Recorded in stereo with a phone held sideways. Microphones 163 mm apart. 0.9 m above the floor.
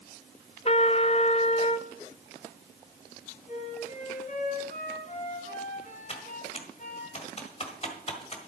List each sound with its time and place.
0.7 s a trumpet: 40° left (ahead or behind), 0.6 m
3.5 s a flute: 50° left (ahead or behind), 2.5 m
6.1 s typing on a keyboard: 40° left (ahead or behind), 1.7 m